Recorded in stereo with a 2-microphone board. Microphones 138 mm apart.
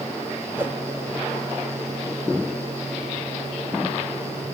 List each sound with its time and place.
0.6 s a whoosh: 15° right (ahead or behind), 2.5 m